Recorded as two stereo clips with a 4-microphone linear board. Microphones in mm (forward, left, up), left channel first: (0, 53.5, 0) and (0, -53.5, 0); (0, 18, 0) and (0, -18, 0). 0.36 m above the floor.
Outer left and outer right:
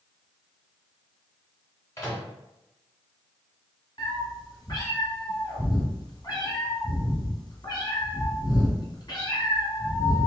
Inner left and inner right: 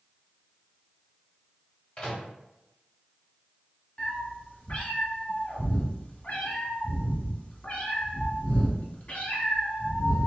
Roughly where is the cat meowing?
Left.